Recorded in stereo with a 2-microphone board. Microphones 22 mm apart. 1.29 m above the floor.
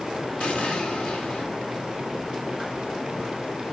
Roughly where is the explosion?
Left.